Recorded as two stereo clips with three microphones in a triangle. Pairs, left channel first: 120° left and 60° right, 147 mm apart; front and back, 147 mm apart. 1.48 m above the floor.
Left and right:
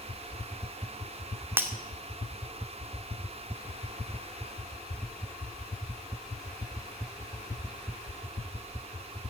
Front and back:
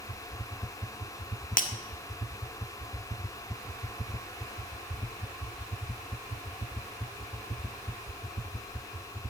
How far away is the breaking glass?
About 1.9 m.